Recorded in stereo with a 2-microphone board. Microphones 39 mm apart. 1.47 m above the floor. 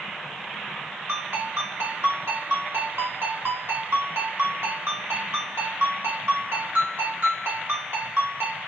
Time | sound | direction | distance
1.1 | a ringtone | 75° right (ahead or behind) | 1.8 m